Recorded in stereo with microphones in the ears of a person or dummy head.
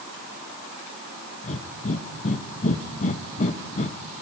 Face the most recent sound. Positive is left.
turn(degrees=45)  # may be behind; listen again after turning